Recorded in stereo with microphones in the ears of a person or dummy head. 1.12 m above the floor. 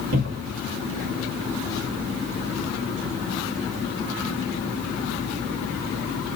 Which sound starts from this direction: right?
A cupboard door, at 0.1 s.